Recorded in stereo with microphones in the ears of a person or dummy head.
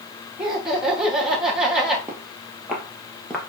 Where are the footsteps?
10° right (ahead or behind), 2.5 m; by 3.4 s 5° left (ahead or behind), 2 m.